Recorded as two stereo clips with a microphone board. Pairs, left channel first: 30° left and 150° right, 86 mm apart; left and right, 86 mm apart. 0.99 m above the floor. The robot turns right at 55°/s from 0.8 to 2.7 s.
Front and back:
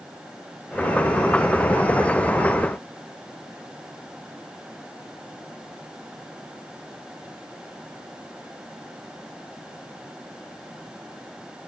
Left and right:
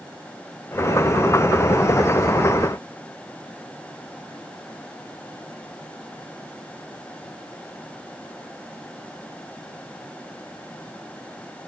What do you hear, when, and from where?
Only background noise.